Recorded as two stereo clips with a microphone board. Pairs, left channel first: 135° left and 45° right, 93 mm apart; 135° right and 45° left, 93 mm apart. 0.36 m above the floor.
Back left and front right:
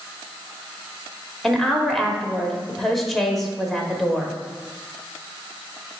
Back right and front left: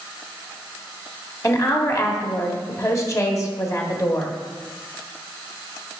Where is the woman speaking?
135° right, 1.0 m.